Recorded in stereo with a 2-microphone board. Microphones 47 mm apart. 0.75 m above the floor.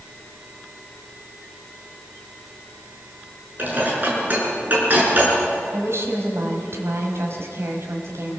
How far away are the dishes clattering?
About 7 m.